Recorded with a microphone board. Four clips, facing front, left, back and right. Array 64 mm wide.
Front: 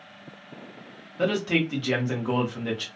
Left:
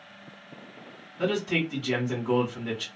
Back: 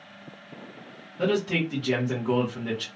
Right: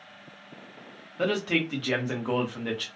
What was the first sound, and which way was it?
A man speaking, 65° right.